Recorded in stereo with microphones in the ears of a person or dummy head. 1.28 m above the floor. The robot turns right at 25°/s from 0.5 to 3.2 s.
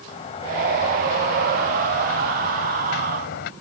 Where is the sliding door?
45° left; by 3.5 s 110° left.